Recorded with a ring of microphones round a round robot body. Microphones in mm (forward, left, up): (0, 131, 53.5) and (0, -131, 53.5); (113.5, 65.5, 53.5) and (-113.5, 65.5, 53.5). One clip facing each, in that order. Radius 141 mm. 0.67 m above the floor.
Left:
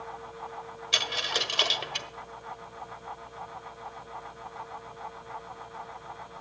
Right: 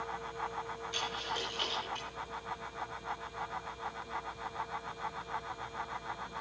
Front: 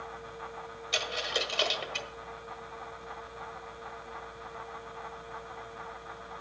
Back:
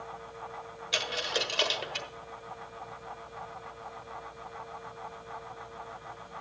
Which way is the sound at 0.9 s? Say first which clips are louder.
Left 8 dB, back 1 dB; 105° left.